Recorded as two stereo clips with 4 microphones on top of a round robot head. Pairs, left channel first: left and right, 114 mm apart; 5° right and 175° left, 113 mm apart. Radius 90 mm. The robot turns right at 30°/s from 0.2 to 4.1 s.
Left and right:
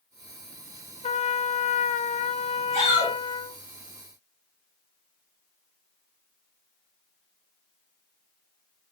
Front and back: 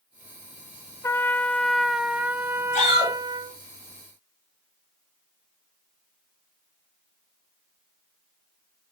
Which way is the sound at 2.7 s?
25° right.